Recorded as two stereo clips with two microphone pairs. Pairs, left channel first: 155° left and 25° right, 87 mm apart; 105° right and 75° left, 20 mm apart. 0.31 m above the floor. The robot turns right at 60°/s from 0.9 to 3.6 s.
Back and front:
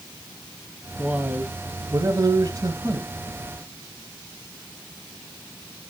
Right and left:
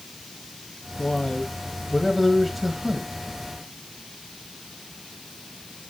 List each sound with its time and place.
1.0 s a man speaking: 105° right, 1.5 m; by 3.1 s 25° left, 1.5 m